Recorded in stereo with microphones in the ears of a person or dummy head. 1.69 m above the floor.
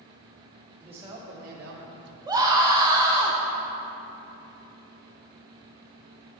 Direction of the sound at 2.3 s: 20° right (ahead or behind).